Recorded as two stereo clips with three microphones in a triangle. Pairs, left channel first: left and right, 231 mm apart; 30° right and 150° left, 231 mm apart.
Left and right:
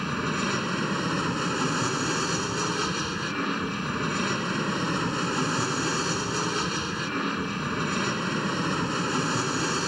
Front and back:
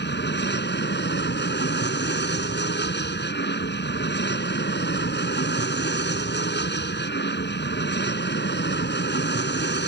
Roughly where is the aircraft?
Ahead.